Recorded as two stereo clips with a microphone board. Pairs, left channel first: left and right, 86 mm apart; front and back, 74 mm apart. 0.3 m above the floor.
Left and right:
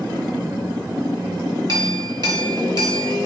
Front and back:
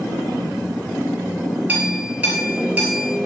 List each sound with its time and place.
1.7 s a clink: 115° right, 2.5 m